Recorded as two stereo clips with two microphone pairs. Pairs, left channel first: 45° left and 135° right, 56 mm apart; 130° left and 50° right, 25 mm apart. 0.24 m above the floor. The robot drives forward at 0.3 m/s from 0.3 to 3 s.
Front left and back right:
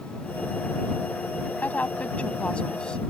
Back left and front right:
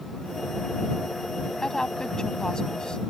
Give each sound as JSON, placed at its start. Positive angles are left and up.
{"t": 1.6, "sound": "a woman speaking", "azimuth_deg": 80}